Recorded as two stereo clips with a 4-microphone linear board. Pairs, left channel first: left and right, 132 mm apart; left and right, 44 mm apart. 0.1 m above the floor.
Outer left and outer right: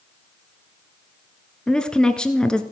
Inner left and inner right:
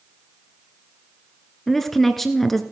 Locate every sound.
1.7 s a woman speaking: 5° left (ahead or behind), 1.1 m